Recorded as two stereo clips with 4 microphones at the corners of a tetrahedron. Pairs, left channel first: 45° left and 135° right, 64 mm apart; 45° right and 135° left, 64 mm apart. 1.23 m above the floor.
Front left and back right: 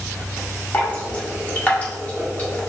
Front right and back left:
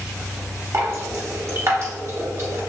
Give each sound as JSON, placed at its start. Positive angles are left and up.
{"t": 0.7, "sound": "dripping", "azimuth_deg": 105, "distance_m": 1.0}